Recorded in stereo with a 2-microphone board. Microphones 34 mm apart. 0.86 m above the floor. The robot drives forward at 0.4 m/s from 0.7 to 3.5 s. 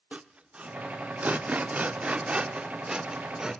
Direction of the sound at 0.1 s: 35° right (ahead or behind).